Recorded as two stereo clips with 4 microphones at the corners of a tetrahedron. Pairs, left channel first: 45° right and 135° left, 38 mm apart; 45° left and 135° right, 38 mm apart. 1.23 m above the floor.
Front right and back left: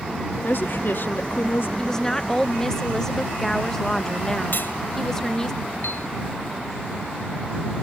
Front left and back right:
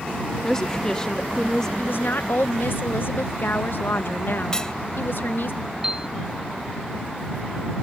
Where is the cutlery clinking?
25° right.